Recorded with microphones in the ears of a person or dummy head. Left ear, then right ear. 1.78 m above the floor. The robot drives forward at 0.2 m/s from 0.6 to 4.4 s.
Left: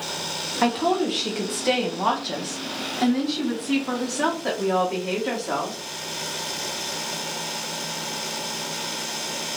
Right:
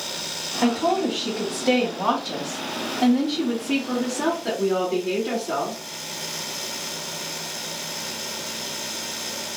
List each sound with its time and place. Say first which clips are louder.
0.6 s a woman speaking: even; 60° left (ahead or behind), 1.3 m; by 5.8 s 45° left (ahead or behind), 1.6 m